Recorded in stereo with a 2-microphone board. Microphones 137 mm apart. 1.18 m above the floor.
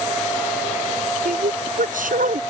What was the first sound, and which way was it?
A woman speaking, 80° right.